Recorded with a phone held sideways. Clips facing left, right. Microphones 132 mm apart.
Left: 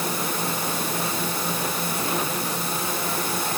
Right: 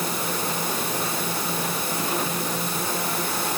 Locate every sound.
Only background noise.